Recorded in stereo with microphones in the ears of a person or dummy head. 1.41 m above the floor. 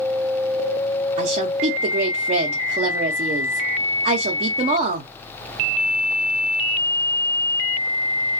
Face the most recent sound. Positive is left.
turn(degrees=-40)  # may be behind; listen again after turning